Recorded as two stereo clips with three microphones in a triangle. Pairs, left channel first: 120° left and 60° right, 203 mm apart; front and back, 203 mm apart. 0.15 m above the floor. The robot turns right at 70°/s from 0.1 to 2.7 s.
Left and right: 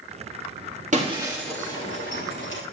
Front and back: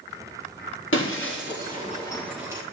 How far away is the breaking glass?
About 3.5 m.